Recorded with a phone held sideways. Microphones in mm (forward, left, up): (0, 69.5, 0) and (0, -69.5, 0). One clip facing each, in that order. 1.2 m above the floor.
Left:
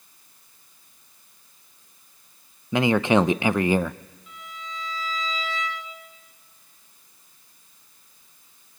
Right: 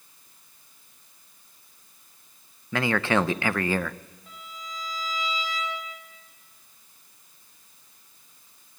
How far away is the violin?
About 5 m.